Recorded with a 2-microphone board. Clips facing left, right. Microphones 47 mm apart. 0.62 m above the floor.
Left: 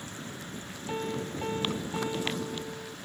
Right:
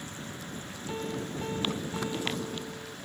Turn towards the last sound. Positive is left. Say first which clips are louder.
# left 2 dB
turn(degrees=25)  # may be behind; listen again after turning